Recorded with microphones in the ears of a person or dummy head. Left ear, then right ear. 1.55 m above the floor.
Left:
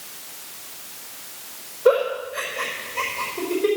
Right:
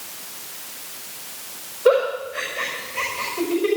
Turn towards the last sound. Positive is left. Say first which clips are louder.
# right 1 dB
turn(degrees=5)  # may be behind; listen again after turning